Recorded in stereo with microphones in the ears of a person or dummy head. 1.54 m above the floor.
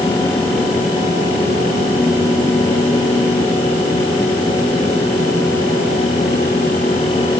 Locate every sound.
Only background noise.